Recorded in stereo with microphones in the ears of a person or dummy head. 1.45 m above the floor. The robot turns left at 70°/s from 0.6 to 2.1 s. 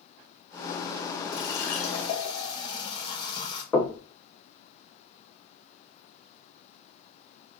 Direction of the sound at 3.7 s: 20° left (ahead or behind).